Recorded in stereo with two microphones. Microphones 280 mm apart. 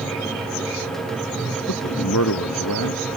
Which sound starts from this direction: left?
A man speaking, at 1.7 s.